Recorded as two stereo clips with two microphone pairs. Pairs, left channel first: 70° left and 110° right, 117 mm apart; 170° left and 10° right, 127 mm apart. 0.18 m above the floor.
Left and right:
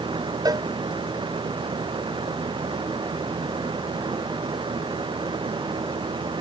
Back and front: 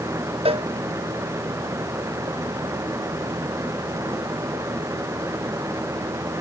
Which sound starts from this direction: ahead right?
A cowbell, at 0.5 s.